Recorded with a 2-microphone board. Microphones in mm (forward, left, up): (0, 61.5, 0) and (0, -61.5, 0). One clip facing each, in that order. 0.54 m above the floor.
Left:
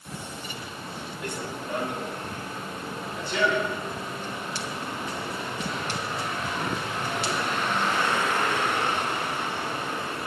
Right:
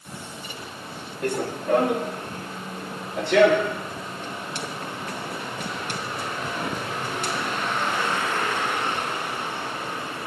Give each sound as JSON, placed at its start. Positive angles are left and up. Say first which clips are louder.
{"t": 1.2, "sound": "running footsteps", "louder": "right 10 dB", "side_deg": -50, "distance_m": 2.0}